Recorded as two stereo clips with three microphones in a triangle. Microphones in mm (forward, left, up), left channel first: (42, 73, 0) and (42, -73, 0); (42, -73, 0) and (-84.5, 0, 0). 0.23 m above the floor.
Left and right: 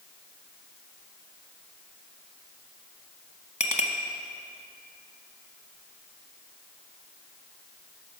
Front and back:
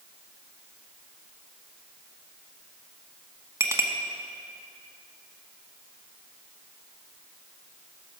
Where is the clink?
85° left, 1.1 m.